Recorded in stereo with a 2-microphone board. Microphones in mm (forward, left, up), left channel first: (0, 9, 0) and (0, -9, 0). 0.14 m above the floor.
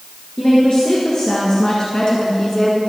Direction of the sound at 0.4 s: 50° left (ahead or behind).